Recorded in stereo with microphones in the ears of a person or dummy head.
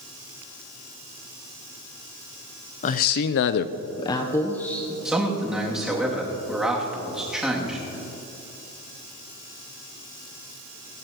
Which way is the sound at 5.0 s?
5° right (ahead or behind).